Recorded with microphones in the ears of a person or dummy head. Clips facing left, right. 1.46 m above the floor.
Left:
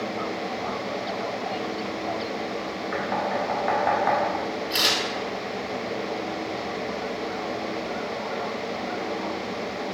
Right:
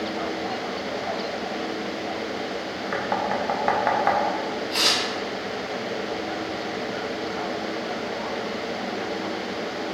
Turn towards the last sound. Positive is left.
turn(degrees=25)  # may be behind; listen again after turning